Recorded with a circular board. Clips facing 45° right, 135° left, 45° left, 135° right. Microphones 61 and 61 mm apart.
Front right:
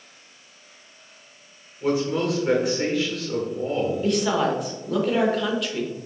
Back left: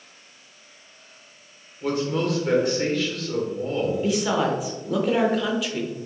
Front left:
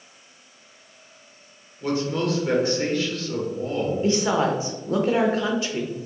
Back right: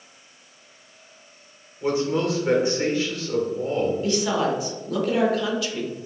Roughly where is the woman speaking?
Ahead left.